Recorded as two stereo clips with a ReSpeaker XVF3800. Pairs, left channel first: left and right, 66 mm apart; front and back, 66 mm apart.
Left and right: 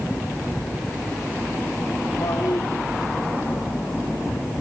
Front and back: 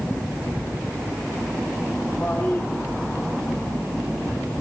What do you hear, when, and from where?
2.2 s a toilet flushing: 60° left, 7.5 m